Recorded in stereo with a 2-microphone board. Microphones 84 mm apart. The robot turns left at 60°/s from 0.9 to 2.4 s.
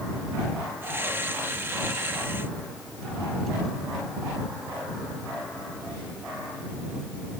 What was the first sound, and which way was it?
Only background noise.